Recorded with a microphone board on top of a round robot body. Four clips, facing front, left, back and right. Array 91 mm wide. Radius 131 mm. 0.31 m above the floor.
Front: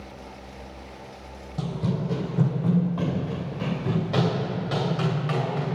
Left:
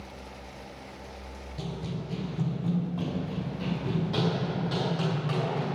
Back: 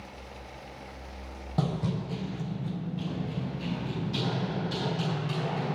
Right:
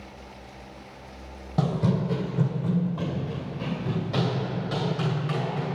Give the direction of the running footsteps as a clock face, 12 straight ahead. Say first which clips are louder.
Right 12 dB, front 2 dB; 4 o'clock.